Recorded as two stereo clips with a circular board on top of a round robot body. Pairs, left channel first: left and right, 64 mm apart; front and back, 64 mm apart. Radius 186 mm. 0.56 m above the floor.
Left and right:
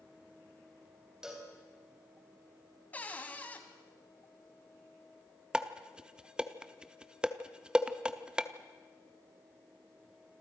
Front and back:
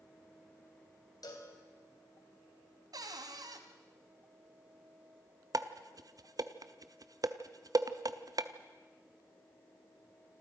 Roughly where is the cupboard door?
Behind.